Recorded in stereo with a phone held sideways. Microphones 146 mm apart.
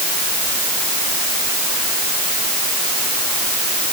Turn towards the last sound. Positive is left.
No sound to turn to.